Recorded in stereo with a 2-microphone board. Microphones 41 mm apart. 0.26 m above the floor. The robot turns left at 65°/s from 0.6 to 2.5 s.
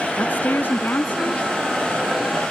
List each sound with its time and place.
0.2 s a woman speaking: 90° left; by 1.4 s 35° left